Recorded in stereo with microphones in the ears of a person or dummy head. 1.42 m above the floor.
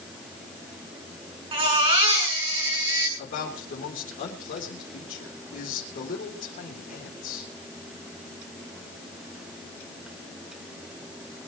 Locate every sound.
1.5 s a baby crying: 25° right (ahead or behind), 8 m
3.2 s a man speaking: 40° left (ahead or behind), 4 m